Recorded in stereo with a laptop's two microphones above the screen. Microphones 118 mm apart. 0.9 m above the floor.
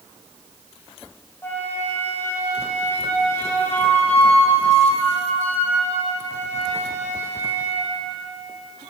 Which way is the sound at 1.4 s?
20° left (ahead or behind).